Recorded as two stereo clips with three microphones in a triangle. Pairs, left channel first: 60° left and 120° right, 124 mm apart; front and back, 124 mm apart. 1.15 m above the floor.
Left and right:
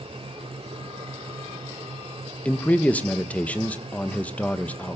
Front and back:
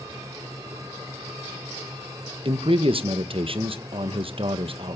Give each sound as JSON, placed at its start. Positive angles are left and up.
{"t": 2.5, "sound": "a man speaking", "azimuth_deg": 140, "distance_m": 0.9}